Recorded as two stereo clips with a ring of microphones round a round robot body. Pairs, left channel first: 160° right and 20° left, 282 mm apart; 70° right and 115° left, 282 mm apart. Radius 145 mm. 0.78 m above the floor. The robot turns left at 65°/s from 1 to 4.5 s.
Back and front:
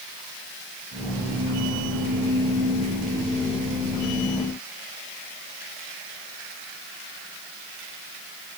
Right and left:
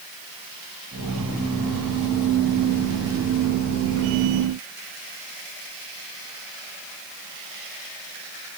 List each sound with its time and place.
Only background noise.